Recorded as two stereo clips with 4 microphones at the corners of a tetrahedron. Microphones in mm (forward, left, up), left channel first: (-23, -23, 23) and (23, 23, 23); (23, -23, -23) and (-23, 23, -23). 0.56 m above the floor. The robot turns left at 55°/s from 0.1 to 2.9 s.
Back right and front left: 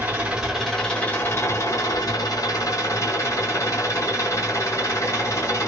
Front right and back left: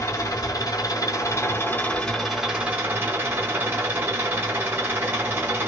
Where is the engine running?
15° right, 1.5 m; by 5.7 s 170° right, 1.5 m.